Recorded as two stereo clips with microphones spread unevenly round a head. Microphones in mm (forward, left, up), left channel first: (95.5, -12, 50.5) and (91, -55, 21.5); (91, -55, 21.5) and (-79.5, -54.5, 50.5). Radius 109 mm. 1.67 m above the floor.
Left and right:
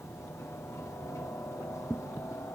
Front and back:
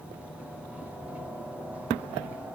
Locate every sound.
0.0 s a helicopter: 90° left